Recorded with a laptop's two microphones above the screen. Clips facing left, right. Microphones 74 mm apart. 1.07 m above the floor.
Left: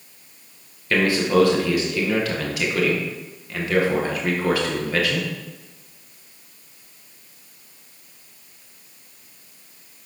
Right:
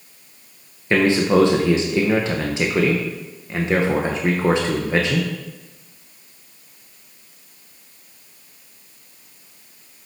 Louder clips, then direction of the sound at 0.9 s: Right 3 dB; 25° right (ahead or behind).